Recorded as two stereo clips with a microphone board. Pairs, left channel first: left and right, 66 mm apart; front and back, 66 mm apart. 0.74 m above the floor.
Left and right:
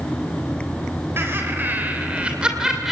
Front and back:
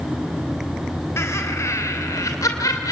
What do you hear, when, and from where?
1.2 s laughter: 40° right, 3 m; by 2.9 s 5° right, 2.5 m